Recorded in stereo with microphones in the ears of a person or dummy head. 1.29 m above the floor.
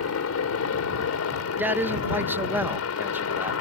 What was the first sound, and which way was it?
A helicopter, 75° left (ahead or behind).